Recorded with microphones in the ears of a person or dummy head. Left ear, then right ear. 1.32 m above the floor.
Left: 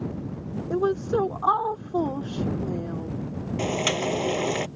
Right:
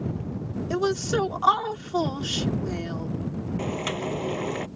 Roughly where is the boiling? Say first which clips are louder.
Left 5 dB; left.